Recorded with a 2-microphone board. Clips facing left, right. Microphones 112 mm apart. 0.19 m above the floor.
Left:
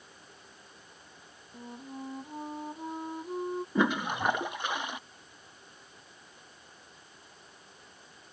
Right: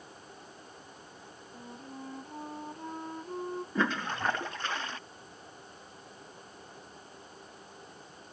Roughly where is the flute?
Centre.